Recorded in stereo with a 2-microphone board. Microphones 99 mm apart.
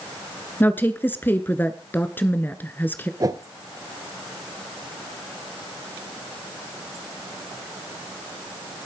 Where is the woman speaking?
20° left (ahead or behind), 1.1 m.